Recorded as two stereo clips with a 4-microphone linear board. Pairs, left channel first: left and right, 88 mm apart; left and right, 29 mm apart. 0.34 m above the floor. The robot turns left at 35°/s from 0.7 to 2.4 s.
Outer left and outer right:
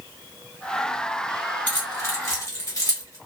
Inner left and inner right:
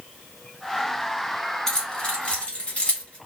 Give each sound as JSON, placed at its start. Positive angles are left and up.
{"t": 1.7, "sound": "keys jangling", "side_deg": 20, "distance_m": 1.4}